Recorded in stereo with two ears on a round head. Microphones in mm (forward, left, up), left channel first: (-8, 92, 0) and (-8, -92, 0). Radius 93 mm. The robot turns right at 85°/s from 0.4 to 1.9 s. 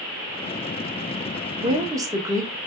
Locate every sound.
1.6 s a woman speaking: 30° right (ahead or behind), 0.9 m; by 2.5 s 15° right (ahead or behind), 0.9 m